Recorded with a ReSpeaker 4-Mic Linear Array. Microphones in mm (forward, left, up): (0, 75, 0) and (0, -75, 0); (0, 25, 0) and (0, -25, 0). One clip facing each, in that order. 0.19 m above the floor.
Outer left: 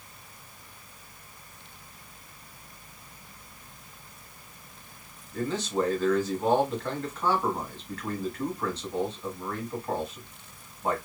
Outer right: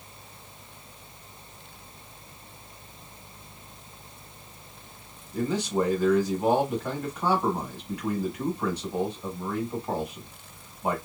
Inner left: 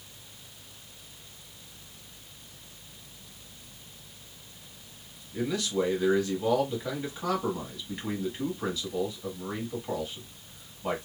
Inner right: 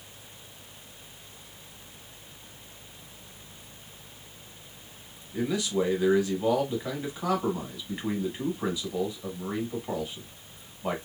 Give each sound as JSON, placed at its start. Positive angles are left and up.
{"t": 5.3, "sound": "a man speaking", "side_deg": -10, "distance_m": 1.1}